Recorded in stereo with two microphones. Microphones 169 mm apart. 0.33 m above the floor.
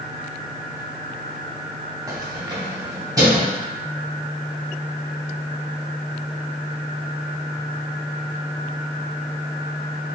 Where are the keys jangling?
20° right (ahead or behind), 0.6 m.